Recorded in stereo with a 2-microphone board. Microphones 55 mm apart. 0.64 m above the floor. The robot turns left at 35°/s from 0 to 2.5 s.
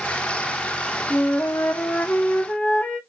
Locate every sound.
1.1 s a flute: 75° left, 0.8 m; by 3.0 s 30° left, 0.8 m